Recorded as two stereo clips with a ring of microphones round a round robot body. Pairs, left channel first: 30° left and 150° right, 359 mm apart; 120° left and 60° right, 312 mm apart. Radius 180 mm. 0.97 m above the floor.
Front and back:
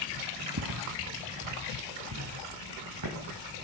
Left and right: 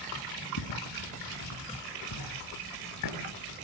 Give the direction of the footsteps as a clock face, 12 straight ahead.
7 o'clock.